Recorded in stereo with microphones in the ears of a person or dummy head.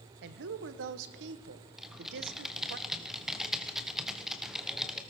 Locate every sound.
0.2 s a woman speaking: 65° right (ahead or behind), 1.1 m
1.8 s typing on a keyboard: 5° right (ahead or behind), 1.3 m